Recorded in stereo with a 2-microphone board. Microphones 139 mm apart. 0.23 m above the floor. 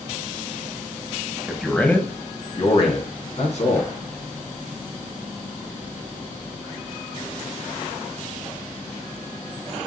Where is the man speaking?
5° right (ahead or behind), 1.0 m; by 3.9 s 60° left (ahead or behind), 2 m.